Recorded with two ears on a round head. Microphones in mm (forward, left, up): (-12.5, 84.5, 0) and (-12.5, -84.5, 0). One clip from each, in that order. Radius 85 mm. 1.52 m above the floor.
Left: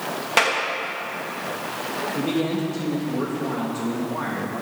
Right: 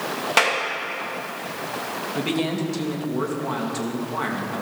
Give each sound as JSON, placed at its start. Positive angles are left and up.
{"t": 0.4, "sound": "a clap", "side_deg": -5, "distance_m": 2.0}
{"t": 2.1, "sound": "a man speaking", "side_deg": -50, "distance_m": 2.5}